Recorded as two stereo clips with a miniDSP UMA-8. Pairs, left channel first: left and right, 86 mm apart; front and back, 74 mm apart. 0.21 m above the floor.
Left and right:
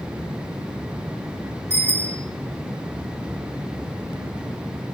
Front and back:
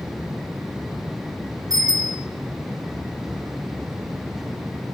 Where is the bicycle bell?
155° left, 7.5 m.